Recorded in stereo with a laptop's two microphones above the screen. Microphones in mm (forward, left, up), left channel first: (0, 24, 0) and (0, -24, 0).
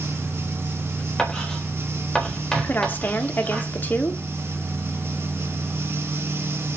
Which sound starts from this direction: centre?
Writing, at 1.2 s.